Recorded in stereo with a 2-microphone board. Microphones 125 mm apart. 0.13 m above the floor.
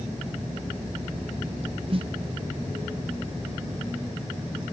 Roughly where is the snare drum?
Right.